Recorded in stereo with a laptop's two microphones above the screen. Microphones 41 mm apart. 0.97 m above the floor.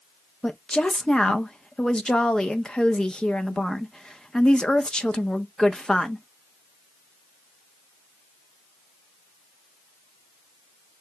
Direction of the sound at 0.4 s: 20° left (ahead or behind).